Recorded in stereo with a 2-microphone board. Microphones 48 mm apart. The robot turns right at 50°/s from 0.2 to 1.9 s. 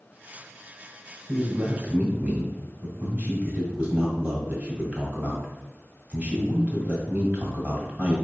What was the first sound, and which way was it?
A man speaking, 100° right.